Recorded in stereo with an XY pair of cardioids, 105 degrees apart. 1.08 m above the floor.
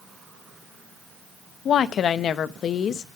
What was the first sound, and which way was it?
A woman speaking, 60° left.